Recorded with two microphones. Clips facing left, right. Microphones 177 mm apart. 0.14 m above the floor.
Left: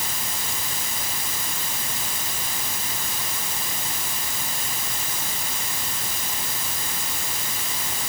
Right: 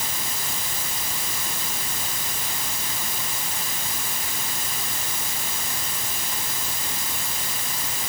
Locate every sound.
Only background noise.